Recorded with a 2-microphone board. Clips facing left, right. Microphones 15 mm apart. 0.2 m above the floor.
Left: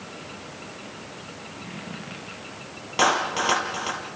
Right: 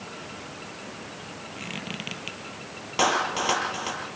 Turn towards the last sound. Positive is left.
turn(degrees=5)  # may be behind; listen again after turning